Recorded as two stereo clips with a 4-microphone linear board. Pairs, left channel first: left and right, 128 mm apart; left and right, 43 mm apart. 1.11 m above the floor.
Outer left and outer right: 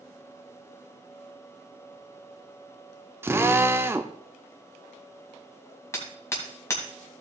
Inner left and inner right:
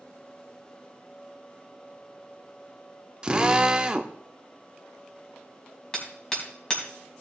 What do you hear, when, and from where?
3.2 s a drill: 20° right (ahead or behind), 0.6 m
5.9 s hammering: 20° left (ahead or behind), 3 m